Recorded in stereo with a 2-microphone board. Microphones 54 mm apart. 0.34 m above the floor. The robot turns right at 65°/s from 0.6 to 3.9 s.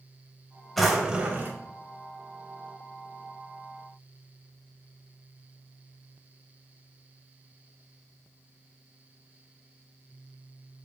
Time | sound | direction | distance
0.8 | a drawer | 175° left | 0.5 m